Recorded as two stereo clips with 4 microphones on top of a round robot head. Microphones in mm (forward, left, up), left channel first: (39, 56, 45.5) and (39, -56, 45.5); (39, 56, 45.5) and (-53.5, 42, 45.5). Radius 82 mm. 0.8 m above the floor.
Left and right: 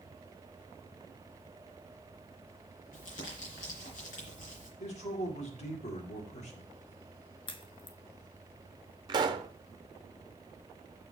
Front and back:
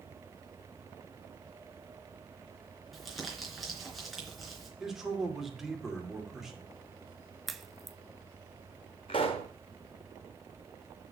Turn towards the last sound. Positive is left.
turn(degrees=-45)